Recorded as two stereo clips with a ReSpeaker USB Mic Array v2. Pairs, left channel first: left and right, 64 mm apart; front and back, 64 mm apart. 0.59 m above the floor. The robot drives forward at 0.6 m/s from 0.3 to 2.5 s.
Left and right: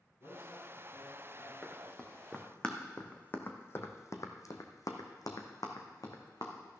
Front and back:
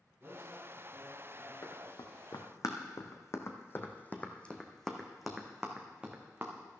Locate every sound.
0.2 s a man speaking: 85° left, 5.5 m; by 1.5 s 95° left, 5.5 m
1.6 s running footsteps: straight ahead, 2.5 m; by 6.8 s 115° left, 2 m